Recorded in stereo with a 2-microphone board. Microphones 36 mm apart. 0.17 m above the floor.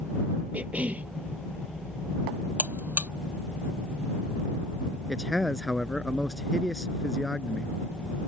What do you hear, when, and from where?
0.5 s a cough: 40° right (ahead or behind)
2.6 s a buzzer: 55° right (ahead or behind)
5.1 s a man speaking: 5° left (ahead or behind)